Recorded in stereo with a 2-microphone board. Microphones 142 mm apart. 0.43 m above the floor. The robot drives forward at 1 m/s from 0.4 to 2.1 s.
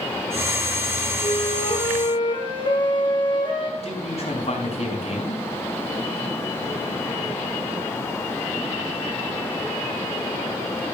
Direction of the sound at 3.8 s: 50° left (ahead or behind).